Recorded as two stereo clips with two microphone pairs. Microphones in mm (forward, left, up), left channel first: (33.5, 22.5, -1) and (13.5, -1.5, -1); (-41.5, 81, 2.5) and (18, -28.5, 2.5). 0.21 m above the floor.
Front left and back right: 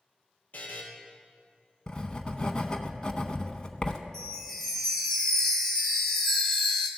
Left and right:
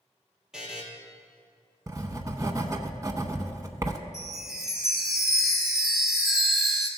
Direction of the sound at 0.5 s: 25° left.